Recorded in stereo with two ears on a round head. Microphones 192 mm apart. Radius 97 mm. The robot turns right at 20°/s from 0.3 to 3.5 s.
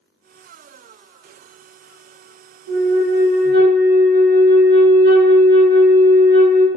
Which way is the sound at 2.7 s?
60° right (ahead or behind).